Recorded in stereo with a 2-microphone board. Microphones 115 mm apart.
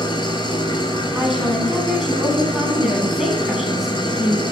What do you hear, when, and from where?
0.0 s an engine running: 40° left (ahead or behind), 0.8 m
1.1 s a woman speaking: 5° right (ahead or behind), 1.4 m